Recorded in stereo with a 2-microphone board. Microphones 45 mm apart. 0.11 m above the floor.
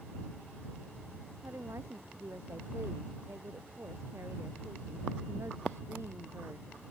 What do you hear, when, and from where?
1.4 s a woman speaking: 75° right (ahead or behind)